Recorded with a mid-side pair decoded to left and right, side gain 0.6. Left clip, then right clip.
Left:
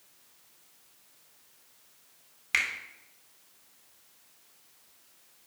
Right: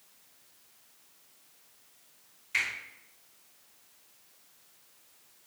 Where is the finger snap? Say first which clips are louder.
Left 2 dB; 65° left, 0.8 m.